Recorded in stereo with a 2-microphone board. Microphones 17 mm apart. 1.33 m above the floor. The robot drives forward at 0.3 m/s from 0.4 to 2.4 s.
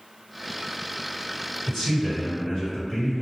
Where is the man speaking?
35° left (ahead or behind), 1.9 m; by 3.2 s 30° left (ahead or behind), 2 m.